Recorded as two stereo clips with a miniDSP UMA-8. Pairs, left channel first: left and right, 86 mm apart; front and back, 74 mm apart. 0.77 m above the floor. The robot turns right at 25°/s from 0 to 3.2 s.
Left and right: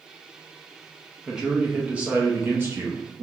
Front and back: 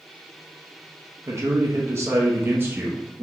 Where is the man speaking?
170° right, 0.5 m; by 3.2 s 120° right, 0.5 m.